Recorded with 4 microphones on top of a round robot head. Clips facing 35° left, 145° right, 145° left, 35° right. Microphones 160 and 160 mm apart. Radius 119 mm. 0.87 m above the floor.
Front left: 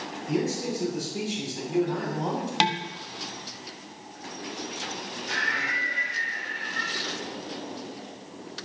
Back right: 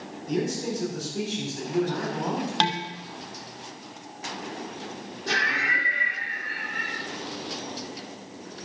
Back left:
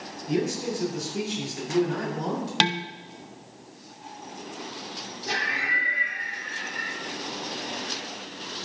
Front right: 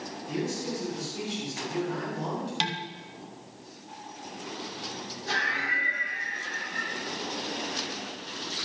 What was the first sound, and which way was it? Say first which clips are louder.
A man speaking: even, back left 5 dB; 120° left.